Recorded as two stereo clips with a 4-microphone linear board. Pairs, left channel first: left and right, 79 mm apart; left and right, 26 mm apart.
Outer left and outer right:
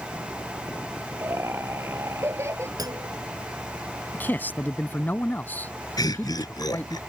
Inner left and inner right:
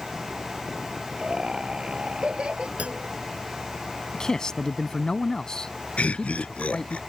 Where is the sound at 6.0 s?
60° left (ahead or behind).